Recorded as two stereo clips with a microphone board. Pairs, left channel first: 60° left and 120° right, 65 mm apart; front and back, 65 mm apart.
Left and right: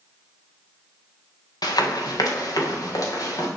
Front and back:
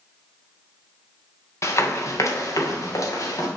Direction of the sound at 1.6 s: 45° left.